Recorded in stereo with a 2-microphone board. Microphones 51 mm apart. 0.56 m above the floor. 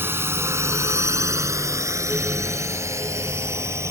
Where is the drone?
50° right (ahead or behind); by 3.9 s 65° right (ahead or behind).